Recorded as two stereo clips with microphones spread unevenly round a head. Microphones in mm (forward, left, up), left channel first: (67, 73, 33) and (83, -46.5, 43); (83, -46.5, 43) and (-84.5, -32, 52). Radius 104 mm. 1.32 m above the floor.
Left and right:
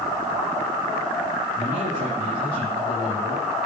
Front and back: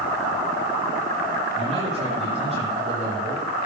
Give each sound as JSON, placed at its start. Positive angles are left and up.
{"t": 1.6, "sound": "a man speaking", "azimuth_deg": -135, "distance_m": 8.5}